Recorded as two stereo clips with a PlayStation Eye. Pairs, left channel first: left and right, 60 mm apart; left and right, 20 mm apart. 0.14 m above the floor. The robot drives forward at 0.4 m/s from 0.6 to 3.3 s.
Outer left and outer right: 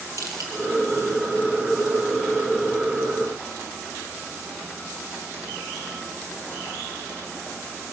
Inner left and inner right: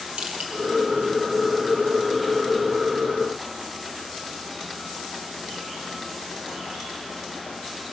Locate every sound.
0.2 s crushing: 65° right (ahead or behind), 4 m